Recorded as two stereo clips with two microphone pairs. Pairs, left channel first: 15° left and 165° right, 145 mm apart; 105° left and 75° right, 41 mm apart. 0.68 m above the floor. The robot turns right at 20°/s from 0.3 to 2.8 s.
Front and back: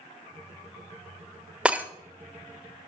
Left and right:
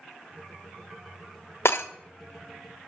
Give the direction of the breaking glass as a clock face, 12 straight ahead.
8 o'clock.